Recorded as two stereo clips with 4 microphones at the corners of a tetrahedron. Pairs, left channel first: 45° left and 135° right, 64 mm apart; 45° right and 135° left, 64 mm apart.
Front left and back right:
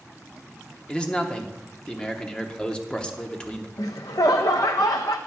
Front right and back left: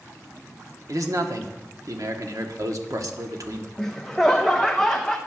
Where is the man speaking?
120° left, 1.0 m.